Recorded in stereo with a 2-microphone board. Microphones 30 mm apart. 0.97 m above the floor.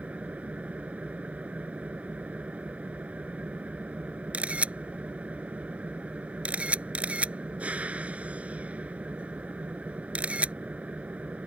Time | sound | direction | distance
0.0 | an engine running | 55° right (ahead or behind) | ?
4.3 | a camera shutter | 50° right (ahead or behind) | ?